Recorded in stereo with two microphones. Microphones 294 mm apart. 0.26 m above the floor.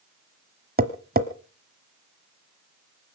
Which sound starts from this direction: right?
Tapping, at 0.8 s.